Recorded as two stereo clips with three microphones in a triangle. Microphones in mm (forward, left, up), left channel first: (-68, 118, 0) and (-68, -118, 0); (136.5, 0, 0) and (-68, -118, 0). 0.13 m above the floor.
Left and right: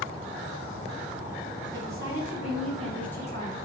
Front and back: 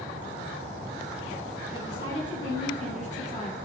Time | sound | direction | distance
1.7 | a woman speaking | 25° right | 1.9 m